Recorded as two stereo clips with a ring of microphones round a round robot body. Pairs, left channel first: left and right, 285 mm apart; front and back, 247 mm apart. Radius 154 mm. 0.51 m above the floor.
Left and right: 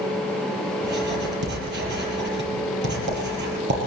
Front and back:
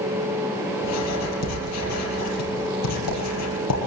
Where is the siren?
No siren in this recording.